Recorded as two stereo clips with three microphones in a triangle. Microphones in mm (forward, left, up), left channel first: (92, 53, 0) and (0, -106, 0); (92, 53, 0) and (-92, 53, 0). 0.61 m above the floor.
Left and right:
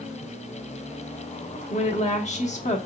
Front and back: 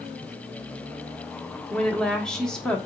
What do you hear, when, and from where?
1.7 s a woman speaking: 85° left, 1.0 m